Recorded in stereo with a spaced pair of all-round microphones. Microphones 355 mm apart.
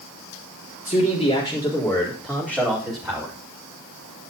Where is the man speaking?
20° left (ahead or behind), 4 m; by 3.3 s 15° right (ahead or behind), 5 m.